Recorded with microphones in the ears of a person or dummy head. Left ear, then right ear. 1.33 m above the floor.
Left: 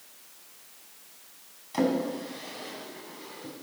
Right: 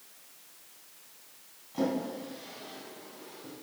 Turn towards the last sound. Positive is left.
turn(degrees=55)  # may be behind; listen again after turning